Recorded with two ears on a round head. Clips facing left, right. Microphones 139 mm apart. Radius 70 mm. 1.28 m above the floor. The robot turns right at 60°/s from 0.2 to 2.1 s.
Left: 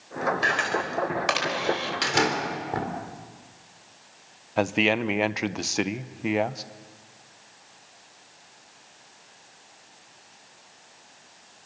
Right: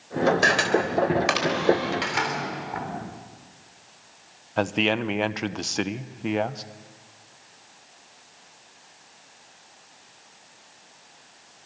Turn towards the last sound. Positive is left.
turn(degrees=5)  # may be behind; listen again after turning